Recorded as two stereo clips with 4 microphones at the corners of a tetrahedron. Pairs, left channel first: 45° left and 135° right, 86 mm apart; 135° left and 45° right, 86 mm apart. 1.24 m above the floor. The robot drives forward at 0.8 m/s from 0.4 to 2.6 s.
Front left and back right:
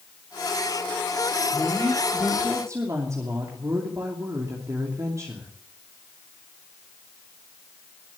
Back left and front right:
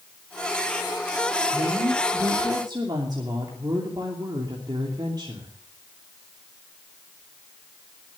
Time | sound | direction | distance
1.5 | a woman speaking | 65° right | 3 m